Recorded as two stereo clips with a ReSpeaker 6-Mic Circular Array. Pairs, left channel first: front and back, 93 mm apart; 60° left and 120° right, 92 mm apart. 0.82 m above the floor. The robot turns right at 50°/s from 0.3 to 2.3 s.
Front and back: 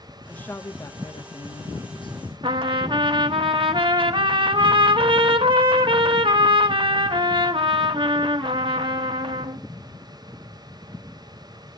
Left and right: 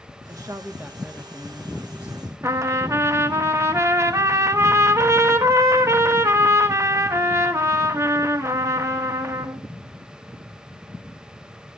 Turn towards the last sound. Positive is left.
turn(degrees=-175)